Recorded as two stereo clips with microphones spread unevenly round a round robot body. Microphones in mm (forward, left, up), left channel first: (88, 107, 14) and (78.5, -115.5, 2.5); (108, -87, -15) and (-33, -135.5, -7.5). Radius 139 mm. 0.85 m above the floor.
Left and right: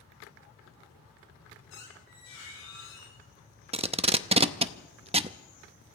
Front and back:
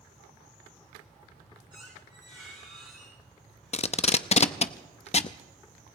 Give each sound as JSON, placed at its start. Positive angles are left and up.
{"t": 1.7, "sound": "a squeak", "azimuth_deg": 125, "distance_m": 10.0}
{"t": 3.7, "sound": "tape being pulled", "azimuth_deg": -30, "distance_m": 0.6}